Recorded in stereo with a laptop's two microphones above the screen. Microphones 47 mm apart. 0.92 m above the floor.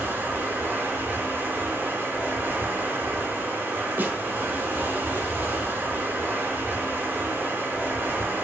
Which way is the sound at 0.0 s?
40° right (ahead or behind).